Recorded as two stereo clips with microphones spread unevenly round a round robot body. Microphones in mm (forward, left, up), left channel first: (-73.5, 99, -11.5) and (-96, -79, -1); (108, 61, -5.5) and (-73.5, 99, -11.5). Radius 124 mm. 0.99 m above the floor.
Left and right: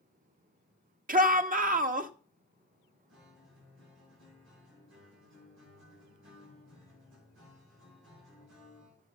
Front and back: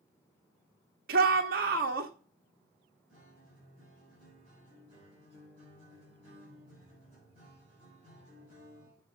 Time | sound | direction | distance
1.1 | a shout | 140° right | 1.6 m
3.1 | a guitar | 80° right | 8.5 m